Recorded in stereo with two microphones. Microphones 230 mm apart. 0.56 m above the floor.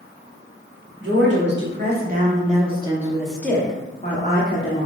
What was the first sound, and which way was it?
A woman speaking, 55° right (ahead or behind).